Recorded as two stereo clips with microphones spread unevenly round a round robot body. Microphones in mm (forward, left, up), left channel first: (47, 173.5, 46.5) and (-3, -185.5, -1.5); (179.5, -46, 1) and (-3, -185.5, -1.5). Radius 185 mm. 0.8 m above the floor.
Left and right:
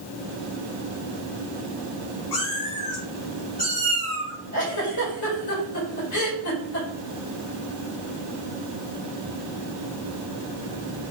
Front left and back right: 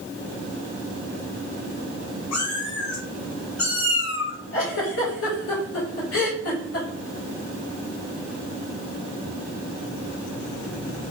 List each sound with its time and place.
2.3 s a cat meowing: 55° left, 1.2 m; by 4.3 s straight ahead, 1.9 m
4.5 s a giggle: 40° left, 1.6 m